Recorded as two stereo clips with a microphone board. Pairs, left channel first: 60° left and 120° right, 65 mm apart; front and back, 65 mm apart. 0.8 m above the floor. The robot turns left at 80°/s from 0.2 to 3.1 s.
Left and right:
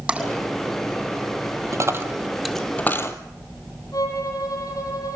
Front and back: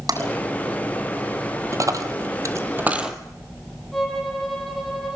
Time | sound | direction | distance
0.1 | tapping | 165° left | 6.5 m
1.7 | a dropped coin | 150° right | 1.5 m
3.9 | a violin | 85° left | 7.5 m